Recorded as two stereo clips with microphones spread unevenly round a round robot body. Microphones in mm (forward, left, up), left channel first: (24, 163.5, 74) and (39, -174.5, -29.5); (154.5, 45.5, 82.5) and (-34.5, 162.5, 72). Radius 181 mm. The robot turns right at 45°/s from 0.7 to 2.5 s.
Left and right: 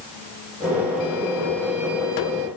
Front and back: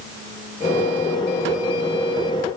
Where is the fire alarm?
No fire alarm in this recording.